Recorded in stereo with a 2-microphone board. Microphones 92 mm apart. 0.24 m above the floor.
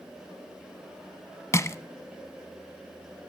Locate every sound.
1.5 s crushing: 35° left (ahead or behind), 0.5 m